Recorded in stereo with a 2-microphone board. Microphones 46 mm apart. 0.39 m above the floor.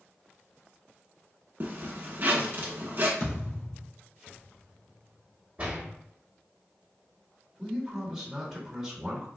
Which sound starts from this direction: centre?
A man speaking, at 7.6 s.